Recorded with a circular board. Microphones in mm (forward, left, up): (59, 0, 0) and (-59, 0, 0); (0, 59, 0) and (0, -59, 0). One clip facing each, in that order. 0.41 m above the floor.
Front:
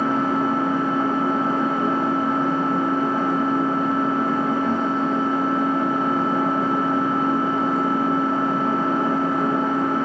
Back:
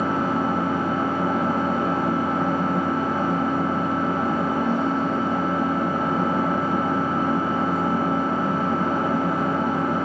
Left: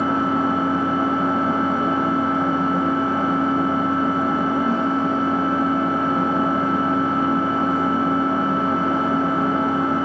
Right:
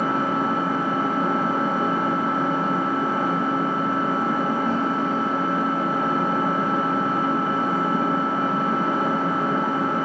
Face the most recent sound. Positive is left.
turn(degrees=155)